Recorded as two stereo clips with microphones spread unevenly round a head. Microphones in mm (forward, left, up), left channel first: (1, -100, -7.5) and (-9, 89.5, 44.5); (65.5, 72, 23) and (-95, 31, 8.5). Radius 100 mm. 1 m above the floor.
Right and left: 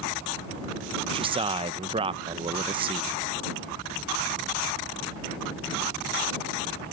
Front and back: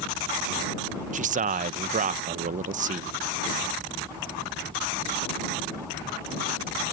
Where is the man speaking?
165° left.